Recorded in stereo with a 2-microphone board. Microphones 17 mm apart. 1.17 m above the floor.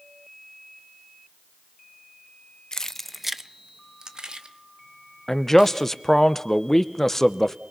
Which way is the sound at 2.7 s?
40° left (ahead or behind).